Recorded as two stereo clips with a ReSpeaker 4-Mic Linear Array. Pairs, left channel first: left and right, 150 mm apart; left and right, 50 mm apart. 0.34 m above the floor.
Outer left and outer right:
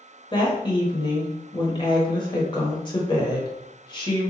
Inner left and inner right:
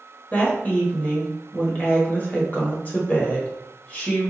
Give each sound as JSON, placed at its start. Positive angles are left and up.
{"t": 0.3, "sound": "a woman speaking", "side_deg": 30, "distance_m": 1.1}